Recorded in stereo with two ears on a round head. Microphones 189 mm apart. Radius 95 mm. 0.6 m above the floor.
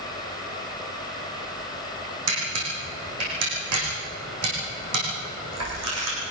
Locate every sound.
2.3 s a camera shutter: 90° right, 8.5 m